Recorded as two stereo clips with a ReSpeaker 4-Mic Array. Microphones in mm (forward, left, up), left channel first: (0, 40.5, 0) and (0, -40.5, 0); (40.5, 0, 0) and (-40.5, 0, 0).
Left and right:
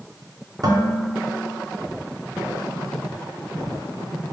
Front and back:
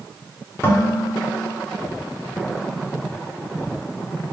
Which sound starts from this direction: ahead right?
Dishes clattering, at 0.6 s.